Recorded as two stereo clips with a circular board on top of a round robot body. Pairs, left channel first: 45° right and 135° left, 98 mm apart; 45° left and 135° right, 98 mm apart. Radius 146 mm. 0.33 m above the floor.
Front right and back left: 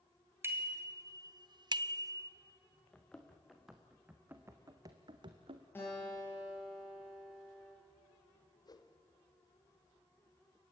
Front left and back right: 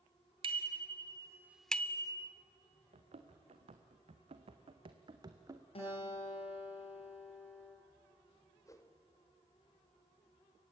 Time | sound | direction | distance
0.4 | a bicycle bell | 160° right | 2 m
2.9 | running footsteps | 125° right | 2.5 m
5.8 | a guitar | 25° left | 9 m
8.7 | a whoosh | 5° right | 1.8 m